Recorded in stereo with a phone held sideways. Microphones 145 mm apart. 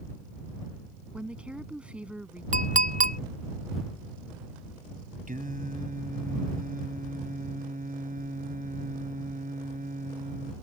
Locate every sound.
1.1 s a woman speaking: 10° right (ahead or behind)
2.5 s a clink: 65° right (ahead or behind)
5.3 s singing: 75° right (ahead or behind)